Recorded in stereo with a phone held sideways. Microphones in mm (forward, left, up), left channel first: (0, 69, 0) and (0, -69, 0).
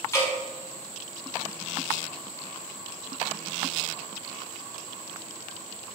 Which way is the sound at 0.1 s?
20° left (ahead or behind).